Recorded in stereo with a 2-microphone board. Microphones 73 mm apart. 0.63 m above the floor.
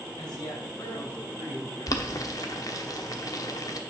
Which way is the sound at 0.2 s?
75° left (ahead or behind).